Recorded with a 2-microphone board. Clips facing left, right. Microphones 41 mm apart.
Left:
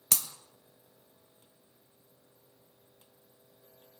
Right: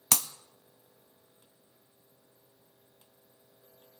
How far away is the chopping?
I don't hear chopping.